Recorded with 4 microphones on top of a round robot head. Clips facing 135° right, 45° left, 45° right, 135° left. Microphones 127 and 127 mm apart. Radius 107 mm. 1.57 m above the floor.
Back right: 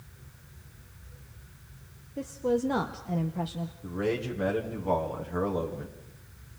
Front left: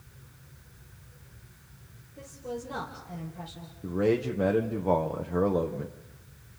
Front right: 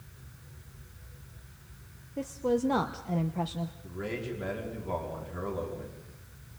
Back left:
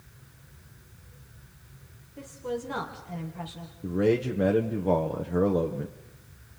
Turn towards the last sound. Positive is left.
turn(degrees=110)